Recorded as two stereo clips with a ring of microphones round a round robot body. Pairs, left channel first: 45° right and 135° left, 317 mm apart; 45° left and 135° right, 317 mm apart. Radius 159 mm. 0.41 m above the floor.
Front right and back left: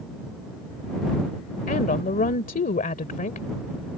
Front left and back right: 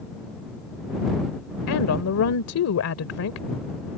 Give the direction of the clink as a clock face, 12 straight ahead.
I don't hear a clink.